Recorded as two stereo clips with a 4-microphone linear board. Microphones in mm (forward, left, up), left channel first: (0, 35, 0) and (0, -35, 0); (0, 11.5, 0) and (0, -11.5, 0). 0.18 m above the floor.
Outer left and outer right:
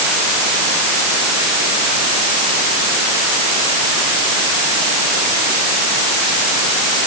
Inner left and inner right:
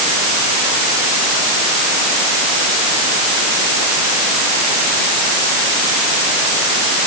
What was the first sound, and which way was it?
Only background noise.